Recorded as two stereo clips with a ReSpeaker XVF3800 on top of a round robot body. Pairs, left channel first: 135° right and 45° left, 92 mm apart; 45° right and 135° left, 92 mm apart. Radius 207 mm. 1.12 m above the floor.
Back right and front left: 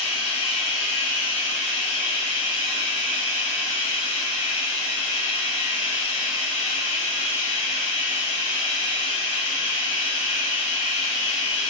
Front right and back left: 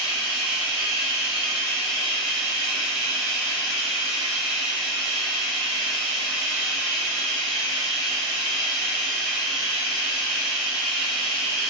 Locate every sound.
0.0 s running water: 140° right, 1.5 m